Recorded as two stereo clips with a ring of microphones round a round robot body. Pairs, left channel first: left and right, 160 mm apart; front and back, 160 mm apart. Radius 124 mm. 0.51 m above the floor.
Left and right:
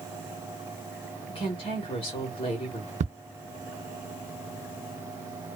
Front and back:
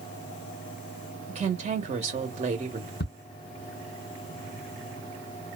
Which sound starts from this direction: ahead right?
Ticking, at 3.0 s.